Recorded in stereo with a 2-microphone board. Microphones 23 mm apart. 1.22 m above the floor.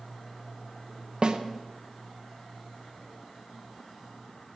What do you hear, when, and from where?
1.2 s a snare drum: 45° right (ahead or behind), 0.9 m